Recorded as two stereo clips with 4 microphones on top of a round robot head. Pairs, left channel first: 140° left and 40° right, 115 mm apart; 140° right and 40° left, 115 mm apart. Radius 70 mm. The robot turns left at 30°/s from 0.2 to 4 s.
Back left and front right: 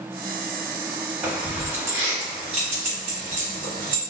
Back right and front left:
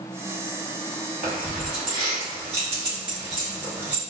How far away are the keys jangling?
About 1.3 m.